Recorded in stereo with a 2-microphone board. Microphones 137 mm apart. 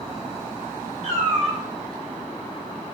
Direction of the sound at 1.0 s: 60° right (ahead or behind).